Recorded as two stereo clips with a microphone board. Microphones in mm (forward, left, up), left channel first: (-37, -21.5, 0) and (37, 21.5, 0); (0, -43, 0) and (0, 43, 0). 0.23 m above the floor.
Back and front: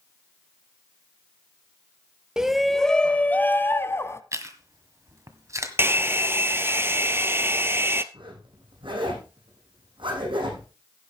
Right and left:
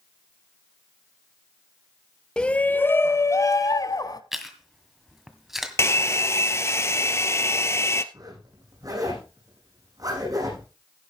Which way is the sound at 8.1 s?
50° left.